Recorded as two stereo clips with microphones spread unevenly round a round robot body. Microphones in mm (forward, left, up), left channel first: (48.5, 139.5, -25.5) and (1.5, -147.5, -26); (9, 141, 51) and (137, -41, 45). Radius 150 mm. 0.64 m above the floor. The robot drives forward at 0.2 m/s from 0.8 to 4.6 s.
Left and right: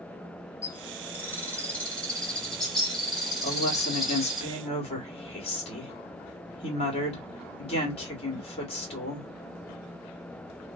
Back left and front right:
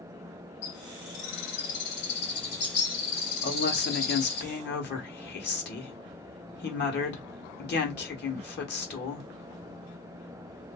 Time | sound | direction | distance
0.6 | a bird | 160° left | 0.5 m
3.4 | a woman speaking | 140° left | 1.2 m